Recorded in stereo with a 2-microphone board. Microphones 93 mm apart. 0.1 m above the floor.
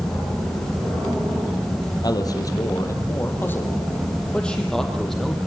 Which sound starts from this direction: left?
A man speaking, at 2.0 s.